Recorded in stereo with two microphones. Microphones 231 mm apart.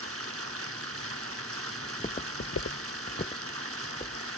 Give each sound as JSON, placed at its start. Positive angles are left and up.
{"t": 0.0, "sound": "running water", "side_deg": -70, "distance_m": 1.4}
{"t": 1.8, "sound": "footsteps", "side_deg": 20, "distance_m": 0.9}